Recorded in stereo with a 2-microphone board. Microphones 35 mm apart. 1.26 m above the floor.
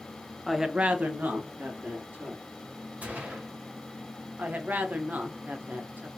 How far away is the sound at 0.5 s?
About 0.7 m.